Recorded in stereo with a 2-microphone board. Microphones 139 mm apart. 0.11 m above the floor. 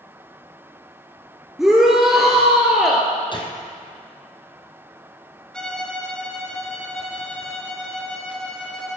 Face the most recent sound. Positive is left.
turn(degrees=5)  # may be behind; listen again after turning